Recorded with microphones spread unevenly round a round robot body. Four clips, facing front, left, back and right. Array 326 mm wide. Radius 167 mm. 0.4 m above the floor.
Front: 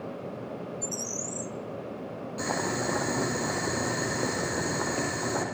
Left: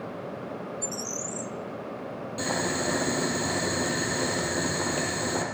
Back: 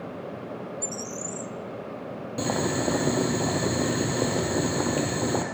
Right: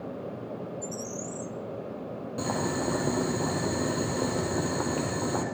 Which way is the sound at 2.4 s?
165° right.